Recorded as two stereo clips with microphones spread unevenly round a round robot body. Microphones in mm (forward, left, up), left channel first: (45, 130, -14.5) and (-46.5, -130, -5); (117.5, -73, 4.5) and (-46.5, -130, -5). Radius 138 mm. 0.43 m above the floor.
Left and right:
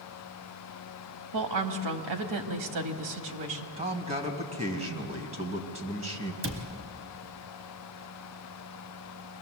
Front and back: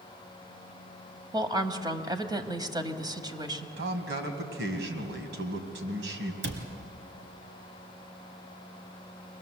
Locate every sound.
1.3 s a woman speaking: 95° right, 2 m
3.8 s a man speaking: 175° right, 2.5 m
6.4 s a cupboard door: 150° right, 2.5 m